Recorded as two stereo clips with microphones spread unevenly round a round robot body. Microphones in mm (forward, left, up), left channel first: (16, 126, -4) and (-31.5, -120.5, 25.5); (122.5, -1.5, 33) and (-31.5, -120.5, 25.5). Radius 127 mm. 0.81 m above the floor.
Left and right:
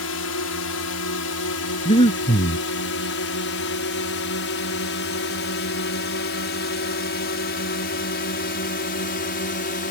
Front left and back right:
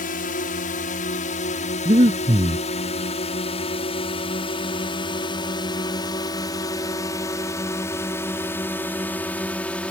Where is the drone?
85° left; by 9.9 s 120° left.